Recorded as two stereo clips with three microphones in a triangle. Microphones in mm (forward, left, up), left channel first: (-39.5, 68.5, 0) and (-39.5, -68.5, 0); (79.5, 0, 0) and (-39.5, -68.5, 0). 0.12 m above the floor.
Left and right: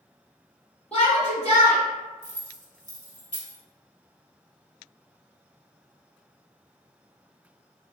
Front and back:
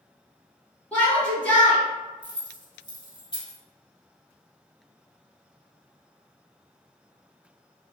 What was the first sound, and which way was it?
A shout, 105° left.